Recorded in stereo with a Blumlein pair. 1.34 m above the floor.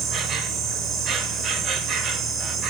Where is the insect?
25° right, 1.7 m.